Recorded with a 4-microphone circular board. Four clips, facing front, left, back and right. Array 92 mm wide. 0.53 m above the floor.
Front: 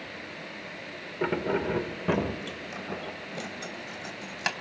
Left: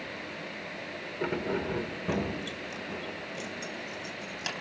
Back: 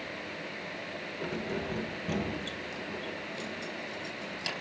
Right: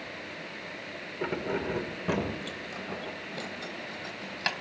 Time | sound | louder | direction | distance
1.2 | keys jangling | even, front 8 dB | straight ahead | 1.1 m